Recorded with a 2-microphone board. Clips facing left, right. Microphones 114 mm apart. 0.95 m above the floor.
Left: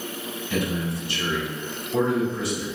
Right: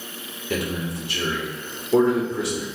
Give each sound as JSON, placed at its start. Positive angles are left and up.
{"t": 0.5, "sound": "a man speaking", "side_deg": -70, "distance_m": 2.5}